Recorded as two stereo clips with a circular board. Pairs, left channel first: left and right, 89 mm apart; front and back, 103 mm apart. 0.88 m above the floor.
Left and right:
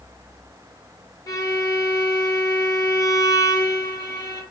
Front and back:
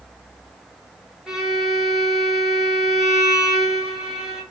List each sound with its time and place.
1.3 s a violin: 100° left, 1.2 m